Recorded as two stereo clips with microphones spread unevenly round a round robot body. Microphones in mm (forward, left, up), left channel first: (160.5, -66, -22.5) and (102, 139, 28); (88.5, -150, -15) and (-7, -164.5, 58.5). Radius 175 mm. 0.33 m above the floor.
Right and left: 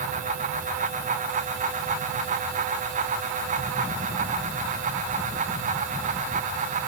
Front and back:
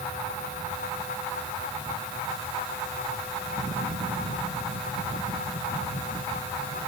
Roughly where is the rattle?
No rattle in this recording.